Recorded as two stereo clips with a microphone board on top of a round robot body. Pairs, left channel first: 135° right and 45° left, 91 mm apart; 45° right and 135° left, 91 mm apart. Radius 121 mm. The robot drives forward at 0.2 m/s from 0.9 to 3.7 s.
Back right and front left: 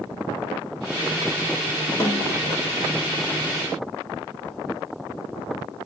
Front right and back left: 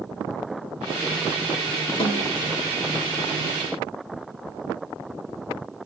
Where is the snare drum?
75° right, 0.5 m; by 2.4 s 85° right, 0.5 m.